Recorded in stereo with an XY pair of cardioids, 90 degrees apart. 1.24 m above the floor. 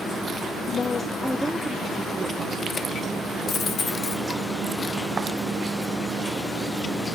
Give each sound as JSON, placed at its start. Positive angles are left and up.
{"t": 0.7, "sound": "a woman speaking", "azimuth_deg": 60, "distance_m": 0.6}
{"t": 3.5, "sound": "a dropped coin", "azimuth_deg": 65, "distance_m": 1.7}